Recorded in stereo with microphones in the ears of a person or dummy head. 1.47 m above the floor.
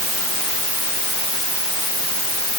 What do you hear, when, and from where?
Only background noise.